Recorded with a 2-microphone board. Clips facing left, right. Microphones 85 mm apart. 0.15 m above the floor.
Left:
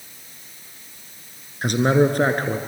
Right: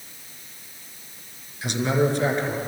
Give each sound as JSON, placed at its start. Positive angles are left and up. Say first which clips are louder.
{"t": 1.6, "sound": "a man speaking", "louder": "left 5 dB", "side_deg": 50, "distance_m": 2.5}